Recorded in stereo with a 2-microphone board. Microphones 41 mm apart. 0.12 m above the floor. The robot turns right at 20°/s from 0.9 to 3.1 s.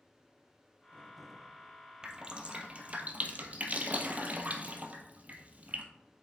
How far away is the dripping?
About 0.8 m.